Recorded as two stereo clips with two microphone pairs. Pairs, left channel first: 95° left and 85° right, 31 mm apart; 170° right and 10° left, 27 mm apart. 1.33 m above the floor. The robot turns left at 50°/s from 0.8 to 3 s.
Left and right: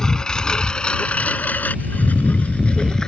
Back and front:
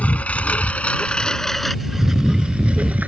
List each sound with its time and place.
0.0 s a lawn mower: 160° left; by 3.1 s 30° left